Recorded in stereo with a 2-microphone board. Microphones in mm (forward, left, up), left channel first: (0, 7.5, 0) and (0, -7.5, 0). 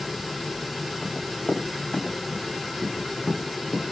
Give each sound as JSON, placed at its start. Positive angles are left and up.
{"t": 1.0, "sound": "running footsteps", "side_deg": 85, "distance_m": 8.5}